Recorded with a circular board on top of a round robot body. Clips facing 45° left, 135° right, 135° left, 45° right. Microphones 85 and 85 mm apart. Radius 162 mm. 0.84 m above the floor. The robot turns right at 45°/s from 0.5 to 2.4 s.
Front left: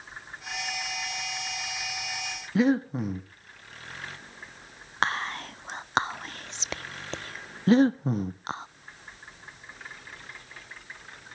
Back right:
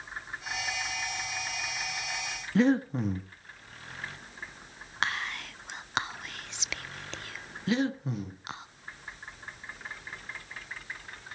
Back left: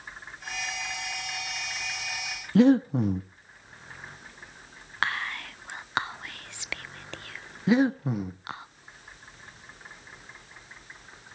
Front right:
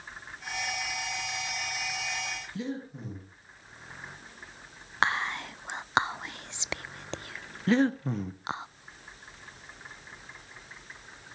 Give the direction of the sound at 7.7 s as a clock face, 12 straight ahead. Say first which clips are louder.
Front left 8 dB, back left 2 dB; 10 o'clock.